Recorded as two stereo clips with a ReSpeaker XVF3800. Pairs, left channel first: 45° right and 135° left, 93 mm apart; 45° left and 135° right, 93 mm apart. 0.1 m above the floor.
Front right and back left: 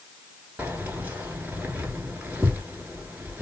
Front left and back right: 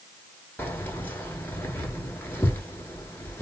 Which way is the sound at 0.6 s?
80° left.